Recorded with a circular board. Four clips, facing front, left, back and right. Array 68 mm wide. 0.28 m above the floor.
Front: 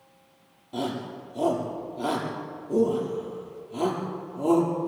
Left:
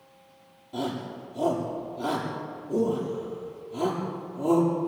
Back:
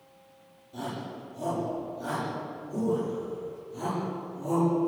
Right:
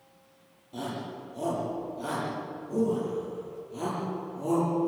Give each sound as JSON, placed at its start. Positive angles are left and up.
{"t": 0.7, "sound": "a shout", "azimuth_deg": 15, "distance_m": 8.0}